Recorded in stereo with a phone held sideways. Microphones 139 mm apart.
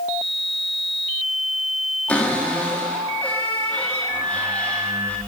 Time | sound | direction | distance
2.1 | a cupboard door | 10° left (ahead or behind) | 1.8 m